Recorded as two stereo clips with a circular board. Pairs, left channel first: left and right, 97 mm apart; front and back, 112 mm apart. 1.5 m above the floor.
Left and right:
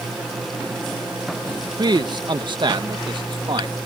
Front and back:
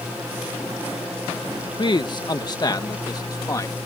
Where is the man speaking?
45° right; by 3.8 s 55° right.